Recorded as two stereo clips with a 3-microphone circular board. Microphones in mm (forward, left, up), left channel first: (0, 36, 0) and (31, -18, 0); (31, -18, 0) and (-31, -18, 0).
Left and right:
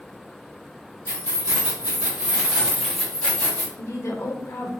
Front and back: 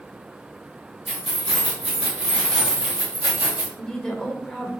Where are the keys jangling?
90° right, 1.3 m; by 3.7 s 140° left, 0.8 m.